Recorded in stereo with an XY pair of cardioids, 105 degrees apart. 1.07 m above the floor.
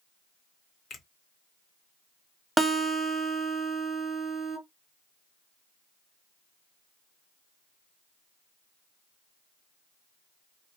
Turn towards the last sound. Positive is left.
turn(degrees=-5)